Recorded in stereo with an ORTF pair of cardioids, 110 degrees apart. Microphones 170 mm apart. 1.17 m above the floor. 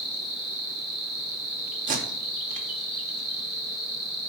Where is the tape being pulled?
50° right, 0.5 m.